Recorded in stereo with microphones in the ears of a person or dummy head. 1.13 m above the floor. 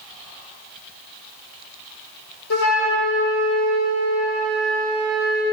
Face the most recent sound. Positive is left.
turn(degrees=85)